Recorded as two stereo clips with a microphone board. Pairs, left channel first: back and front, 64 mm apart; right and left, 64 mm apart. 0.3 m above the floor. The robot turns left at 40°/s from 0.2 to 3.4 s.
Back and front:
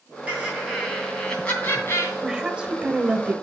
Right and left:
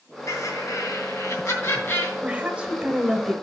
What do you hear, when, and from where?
0.3 s laughter: 65° right, 2.5 m; by 2.1 s 140° right, 2.5 m
2.2 s a woman speaking: 65° left, 0.9 m; by 3.3 s 20° left, 0.9 m